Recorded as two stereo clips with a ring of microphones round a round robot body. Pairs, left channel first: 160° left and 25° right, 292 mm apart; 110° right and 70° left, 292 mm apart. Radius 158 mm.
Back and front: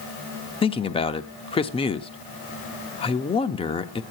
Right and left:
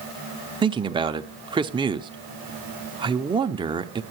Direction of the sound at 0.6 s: 115° left.